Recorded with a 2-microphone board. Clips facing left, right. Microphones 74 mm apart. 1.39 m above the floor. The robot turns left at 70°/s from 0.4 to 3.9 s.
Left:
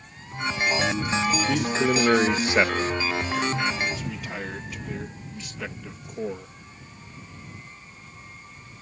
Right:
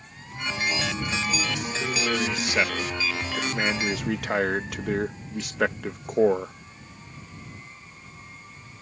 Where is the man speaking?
100° left; by 6.5 s 70° right.